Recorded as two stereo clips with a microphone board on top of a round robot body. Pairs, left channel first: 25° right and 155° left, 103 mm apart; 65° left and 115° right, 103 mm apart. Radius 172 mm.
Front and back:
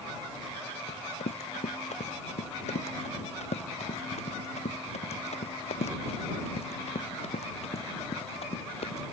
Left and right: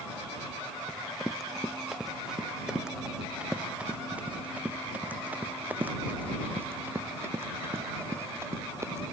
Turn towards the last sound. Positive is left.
turn(degrees=-50)